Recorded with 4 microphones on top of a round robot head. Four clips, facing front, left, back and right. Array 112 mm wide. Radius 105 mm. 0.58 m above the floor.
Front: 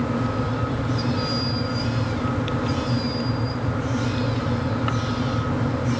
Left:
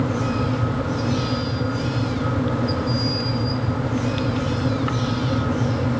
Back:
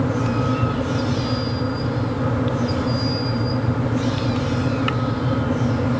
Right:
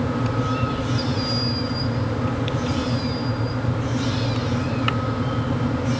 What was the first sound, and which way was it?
Only background noise.